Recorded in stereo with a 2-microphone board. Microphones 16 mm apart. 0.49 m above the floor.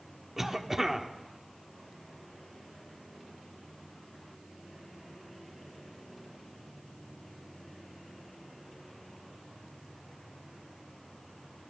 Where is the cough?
20° right (ahead or behind), 1.0 m.